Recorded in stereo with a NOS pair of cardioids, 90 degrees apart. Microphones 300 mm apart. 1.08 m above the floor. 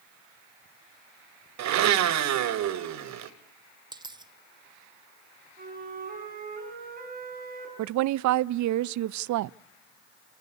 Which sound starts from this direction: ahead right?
A flute, at 5.6 s.